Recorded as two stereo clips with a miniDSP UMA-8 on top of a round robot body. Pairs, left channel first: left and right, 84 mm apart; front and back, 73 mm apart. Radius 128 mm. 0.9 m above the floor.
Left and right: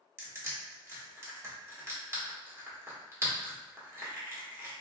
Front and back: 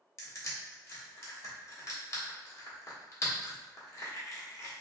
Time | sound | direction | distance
0.2 | crushing | 35° right | 1.4 m